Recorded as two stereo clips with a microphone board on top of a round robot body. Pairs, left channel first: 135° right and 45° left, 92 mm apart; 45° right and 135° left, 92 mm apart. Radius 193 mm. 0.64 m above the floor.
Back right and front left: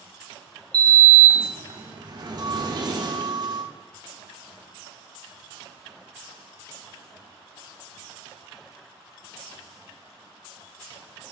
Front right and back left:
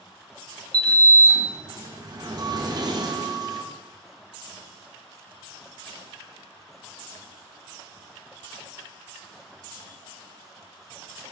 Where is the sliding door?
90° left, 1.2 m.